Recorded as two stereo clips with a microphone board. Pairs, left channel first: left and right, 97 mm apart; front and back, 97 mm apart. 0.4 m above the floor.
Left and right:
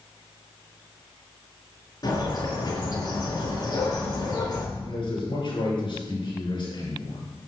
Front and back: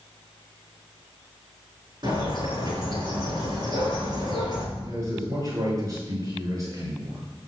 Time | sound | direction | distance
2.0 | a bird | 135° left | 5 m
4.8 | a man speaking | 125° left | 6 m